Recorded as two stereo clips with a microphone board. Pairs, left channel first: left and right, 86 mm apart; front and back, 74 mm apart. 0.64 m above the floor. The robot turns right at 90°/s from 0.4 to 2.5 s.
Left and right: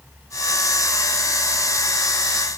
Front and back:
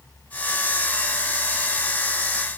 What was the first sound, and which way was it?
Only background noise.